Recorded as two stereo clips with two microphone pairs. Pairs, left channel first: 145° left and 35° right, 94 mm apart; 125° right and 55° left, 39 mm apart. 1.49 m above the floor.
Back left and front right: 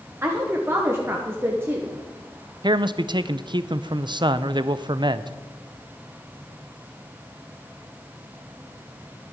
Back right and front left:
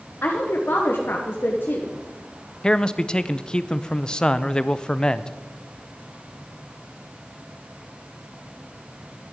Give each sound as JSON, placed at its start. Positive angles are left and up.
{"t": 0.2, "sound": "a woman speaking", "azimuth_deg": -100, "distance_m": 1.3}
{"t": 2.6, "sound": "a man speaking", "azimuth_deg": -60, "distance_m": 0.5}